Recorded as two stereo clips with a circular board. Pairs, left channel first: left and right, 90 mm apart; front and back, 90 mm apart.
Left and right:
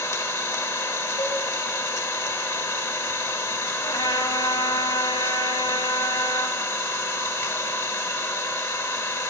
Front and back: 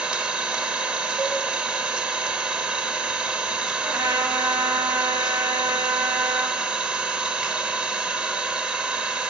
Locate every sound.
0.0 s an engine running: 110° left, 0.8 m
1.2 s a cowbell: 85° left, 4.5 m
3.8 s a trumpet: 125° left, 1.0 m